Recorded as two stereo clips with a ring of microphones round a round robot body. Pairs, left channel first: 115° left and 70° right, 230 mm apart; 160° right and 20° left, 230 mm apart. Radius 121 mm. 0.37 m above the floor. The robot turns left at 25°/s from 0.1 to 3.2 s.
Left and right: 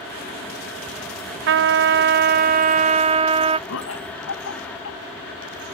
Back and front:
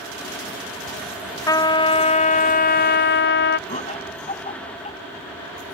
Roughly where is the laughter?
Behind left.